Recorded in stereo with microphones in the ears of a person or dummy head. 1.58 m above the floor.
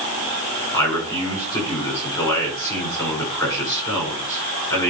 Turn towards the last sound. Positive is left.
turn(degrees=20)  # may be behind; listen again after turning